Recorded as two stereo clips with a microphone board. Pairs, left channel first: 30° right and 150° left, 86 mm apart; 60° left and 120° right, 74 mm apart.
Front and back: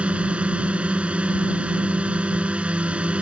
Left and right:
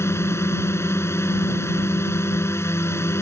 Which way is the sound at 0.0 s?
85° left.